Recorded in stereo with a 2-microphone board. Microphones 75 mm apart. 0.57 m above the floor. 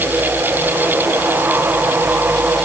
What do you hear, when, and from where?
Only background noise.